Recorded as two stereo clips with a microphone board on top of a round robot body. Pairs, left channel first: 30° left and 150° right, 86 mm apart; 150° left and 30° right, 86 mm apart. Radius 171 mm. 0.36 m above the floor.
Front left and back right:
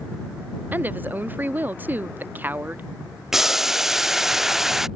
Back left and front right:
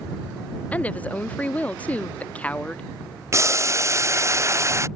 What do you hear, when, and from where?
0.7 s a woman speaking: 165° right
3.3 s boiling: 65° right